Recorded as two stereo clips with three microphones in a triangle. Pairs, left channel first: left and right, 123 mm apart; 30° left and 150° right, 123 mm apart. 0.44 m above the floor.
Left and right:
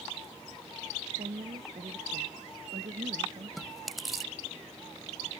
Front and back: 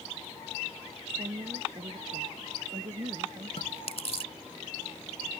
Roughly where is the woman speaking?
Behind right.